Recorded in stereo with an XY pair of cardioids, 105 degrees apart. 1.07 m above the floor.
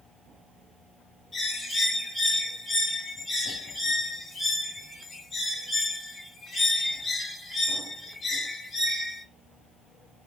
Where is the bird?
40° left, 3 m.